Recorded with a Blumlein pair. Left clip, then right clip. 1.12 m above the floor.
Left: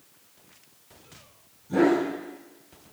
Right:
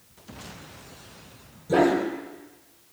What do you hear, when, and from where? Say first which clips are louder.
1.7 s a dog barking: right 1 dB; 55° right, 7.5 m